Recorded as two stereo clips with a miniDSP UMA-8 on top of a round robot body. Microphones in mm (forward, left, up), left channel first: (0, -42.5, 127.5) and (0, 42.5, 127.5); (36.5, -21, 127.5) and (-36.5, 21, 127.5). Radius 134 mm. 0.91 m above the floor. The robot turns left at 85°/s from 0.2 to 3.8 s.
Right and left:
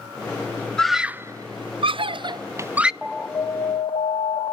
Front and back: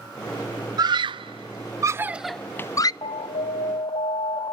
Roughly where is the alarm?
Ahead.